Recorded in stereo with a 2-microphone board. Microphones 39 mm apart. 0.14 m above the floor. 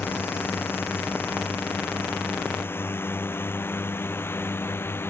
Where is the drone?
65° left (ahead or behind); by 5.1 s 75° left (ahead or behind).